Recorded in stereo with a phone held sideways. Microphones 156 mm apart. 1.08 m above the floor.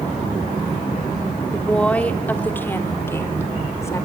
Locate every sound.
1.5 s a woman speaking: 5° left (ahead or behind), 2.5 m; by 4.0 s 20° left (ahead or behind), 3.5 m